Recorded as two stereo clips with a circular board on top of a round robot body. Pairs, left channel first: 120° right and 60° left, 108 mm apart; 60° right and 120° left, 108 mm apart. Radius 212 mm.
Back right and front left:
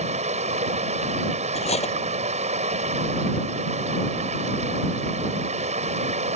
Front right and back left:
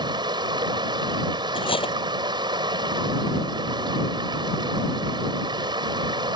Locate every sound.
0.0 s running water: 70° left
1.6 s cutlery clinking: 100° right